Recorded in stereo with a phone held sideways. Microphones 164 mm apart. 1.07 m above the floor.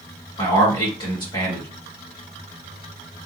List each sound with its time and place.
0.4 s a man speaking: 25° left (ahead or behind), 1.6 m